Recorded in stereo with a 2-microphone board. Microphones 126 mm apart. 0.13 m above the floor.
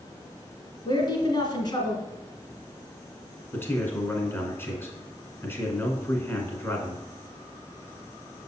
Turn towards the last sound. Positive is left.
turn(degrees=20)  # may be behind; listen again after turning